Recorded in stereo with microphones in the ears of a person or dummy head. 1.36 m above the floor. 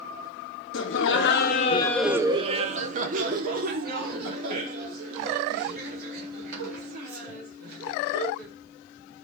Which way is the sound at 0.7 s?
60° left (ahead or behind).